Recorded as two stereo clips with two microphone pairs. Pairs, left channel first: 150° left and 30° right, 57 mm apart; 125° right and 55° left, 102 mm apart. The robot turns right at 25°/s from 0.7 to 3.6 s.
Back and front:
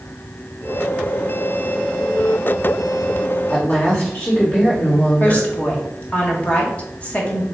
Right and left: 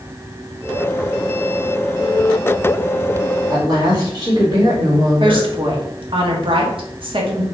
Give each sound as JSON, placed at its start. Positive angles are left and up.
{"t": 3.5, "sound": "a woman speaking", "azimuth_deg": 95, "distance_m": 2.0}
{"t": 5.2, "sound": "a woman speaking", "azimuth_deg": 85, "distance_m": 1.0}